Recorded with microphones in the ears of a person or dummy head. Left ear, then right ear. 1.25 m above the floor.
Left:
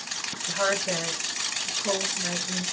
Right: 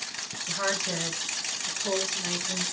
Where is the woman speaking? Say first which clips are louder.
Left 3 dB; centre (ahead or behind), 1.1 m; by 2.6 s 65° right (ahead or behind), 1.2 m.